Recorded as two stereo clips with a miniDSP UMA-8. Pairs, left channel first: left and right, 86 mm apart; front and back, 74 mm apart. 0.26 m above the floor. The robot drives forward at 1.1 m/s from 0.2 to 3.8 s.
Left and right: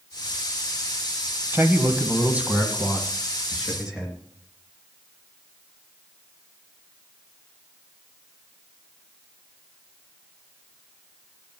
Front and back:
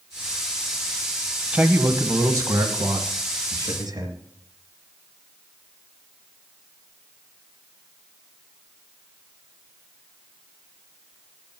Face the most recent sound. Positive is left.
turn(degrees=-170)